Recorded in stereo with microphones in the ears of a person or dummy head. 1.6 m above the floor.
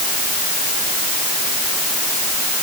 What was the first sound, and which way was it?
Only background noise.